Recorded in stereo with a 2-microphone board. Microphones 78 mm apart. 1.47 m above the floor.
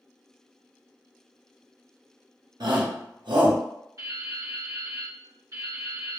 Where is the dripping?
45° right (ahead or behind), 1.2 m.